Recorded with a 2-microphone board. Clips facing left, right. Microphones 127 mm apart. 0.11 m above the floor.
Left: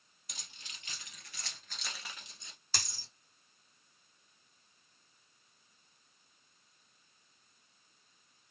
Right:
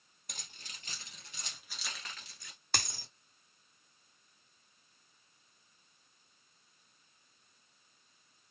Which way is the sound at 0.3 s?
50° right (ahead or behind).